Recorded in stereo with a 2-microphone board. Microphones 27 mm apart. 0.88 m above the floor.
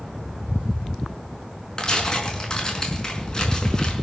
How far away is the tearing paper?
About 5 m.